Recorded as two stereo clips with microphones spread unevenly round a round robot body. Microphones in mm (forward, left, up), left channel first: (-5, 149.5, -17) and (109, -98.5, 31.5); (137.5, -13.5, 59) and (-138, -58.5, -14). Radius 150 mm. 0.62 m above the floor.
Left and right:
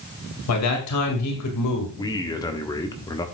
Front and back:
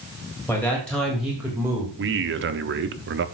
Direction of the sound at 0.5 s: 95° left.